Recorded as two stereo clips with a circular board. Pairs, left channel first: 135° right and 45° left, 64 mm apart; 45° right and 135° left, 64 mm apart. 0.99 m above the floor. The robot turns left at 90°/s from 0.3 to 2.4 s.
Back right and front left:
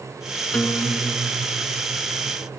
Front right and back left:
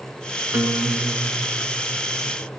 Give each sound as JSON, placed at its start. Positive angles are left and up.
{"t": 0.5, "sound": "a guitar", "azimuth_deg": 150, "distance_m": 1.2}